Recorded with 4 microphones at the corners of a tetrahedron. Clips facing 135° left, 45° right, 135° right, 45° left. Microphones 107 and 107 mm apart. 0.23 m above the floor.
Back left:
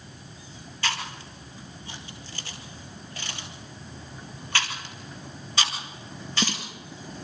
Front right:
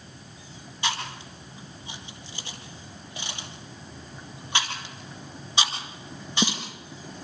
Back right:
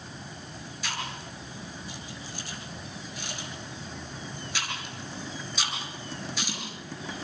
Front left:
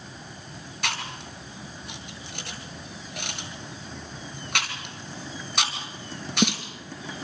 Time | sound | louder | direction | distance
0.8 | chewing | front right 1 dB, front left 3 dB | 25° left | 4 m